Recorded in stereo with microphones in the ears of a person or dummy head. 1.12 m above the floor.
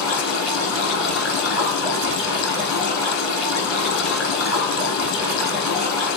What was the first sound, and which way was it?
Running water, 70° left (ahead or behind).